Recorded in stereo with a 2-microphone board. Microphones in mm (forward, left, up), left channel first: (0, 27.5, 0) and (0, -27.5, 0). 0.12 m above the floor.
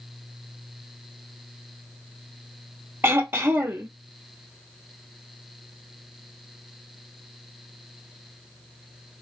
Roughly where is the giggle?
No giggle in this recording.